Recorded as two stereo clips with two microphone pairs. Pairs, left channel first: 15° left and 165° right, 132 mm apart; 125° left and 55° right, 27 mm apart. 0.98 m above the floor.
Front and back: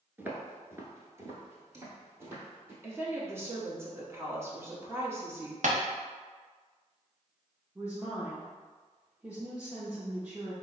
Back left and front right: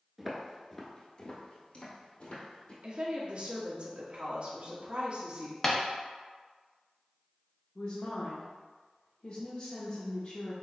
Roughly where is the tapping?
Behind.